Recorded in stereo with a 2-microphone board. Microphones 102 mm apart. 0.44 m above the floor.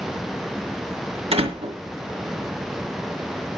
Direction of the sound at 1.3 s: 80° right.